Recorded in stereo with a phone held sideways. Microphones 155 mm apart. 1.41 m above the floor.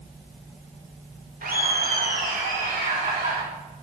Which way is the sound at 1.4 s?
85° right.